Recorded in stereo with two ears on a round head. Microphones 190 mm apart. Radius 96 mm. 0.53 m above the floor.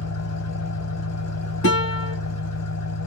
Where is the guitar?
60° left (ahead or behind), 3 m.